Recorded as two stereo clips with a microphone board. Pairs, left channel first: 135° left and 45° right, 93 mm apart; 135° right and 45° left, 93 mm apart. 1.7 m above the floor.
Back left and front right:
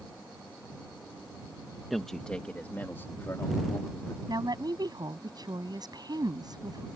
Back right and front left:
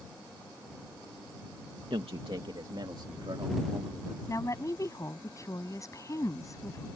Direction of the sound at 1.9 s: 45° left.